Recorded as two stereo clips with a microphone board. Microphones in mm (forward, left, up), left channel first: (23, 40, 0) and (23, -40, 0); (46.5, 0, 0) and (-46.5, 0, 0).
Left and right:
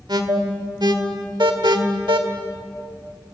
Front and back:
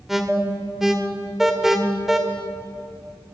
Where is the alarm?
95° right, 2 m.